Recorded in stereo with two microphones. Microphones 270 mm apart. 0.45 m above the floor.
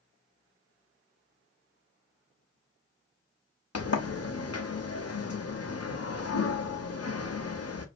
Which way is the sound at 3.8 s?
60° left (ahead or behind).